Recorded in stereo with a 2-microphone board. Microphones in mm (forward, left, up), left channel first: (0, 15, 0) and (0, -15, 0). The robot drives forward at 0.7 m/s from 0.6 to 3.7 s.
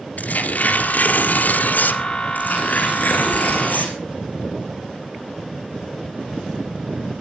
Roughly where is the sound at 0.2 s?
Left.